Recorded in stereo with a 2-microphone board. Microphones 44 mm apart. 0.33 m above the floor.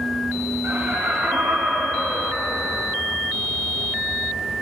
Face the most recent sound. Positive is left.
turn(degrees=-45)  # may be behind; listen again after turning